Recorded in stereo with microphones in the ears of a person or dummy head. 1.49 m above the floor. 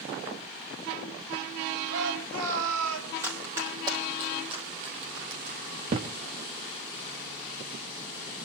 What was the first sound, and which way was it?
A shout, 70° right (ahead or behind).